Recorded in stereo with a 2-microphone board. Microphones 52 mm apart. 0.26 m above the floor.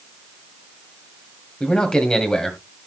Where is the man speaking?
15° left (ahead or behind), 1.7 m.